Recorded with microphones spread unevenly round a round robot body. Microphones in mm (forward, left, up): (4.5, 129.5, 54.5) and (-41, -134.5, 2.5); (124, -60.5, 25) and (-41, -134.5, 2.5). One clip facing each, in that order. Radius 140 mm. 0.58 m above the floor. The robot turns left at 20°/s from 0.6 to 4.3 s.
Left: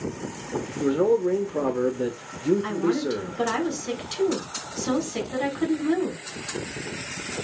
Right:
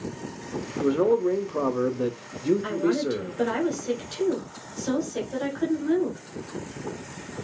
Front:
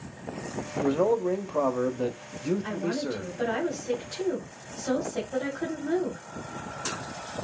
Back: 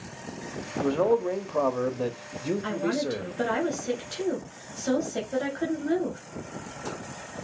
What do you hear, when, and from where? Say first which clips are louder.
0.8 s a man speaking: even, back 1 dB; 70° right, 0.7 m; by 3.3 s 120° right, 0.7 m
2.6 s a woman speaking: even, back 2 dB; 165° left, 3.5 m; by 6.2 s 130° left, 3.5 m